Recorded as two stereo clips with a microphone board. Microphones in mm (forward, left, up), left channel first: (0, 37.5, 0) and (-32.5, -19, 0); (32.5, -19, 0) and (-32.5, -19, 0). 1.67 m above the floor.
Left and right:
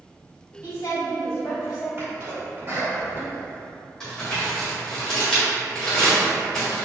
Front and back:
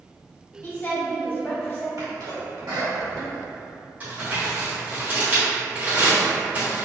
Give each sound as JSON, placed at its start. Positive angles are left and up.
{"t": 0.6, "sound": "a woman speaking", "azimuth_deg": 55, "distance_m": 1.8}
{"t": 2.0, "sound": "a sneeze", "azimuth_deg": -175, "distance_m": 1.9}
{"t": 4.0, "sound": "crumpling", "azimuth_deg": 140, "distance_m": 1.7}